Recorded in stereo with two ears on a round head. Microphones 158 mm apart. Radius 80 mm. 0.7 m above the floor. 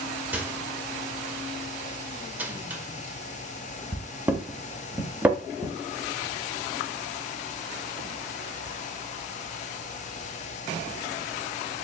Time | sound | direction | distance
0.3 | a microwave | 10° right (ahead or behind) | 0.6 m